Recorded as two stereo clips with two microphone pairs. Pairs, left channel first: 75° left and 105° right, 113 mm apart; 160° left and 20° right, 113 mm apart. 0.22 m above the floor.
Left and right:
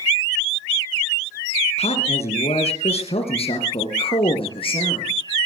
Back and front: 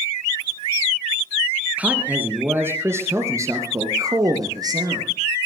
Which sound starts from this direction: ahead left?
A man speaking, at 1.8 s.